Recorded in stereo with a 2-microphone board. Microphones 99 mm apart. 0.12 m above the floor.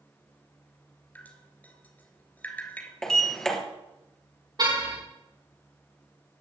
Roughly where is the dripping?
Centre.